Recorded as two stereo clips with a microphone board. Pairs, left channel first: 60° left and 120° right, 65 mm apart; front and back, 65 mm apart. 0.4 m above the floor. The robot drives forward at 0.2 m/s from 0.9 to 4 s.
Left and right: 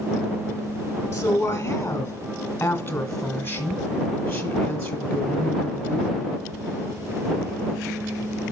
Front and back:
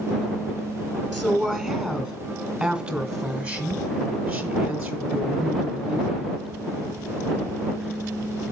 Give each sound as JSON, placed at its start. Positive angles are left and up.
{"t": 1.1, "sound": "a woman speaking", "azimuth_deg": 100, "distance_m": 1.1}